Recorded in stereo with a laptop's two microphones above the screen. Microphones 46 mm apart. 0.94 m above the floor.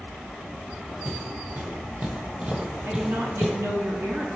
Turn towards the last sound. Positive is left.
turn(degrees=-65)  # may be behind; listen again after turning